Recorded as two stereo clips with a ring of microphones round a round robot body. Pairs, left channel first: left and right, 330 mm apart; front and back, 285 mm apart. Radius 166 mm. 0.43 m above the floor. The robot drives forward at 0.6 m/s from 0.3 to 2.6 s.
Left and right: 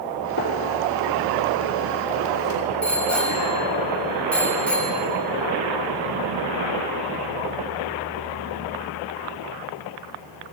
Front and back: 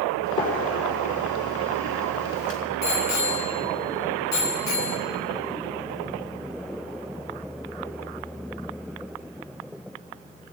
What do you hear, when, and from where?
0.4 s a gunshot: 30° left, 4.5 m; by 2.6 s 45° left, 3 m
2.8 s a bicycle bell: 5° left, 3 m